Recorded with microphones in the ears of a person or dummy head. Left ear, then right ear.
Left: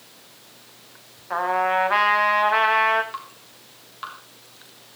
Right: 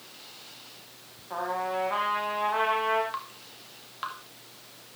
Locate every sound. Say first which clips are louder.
1.3 s a trumpet: left 9 dB; 65° left (ahead or behind), 2 m
3.1 s dripping: left 1 dB; 10° right (ahead or behind), 3 m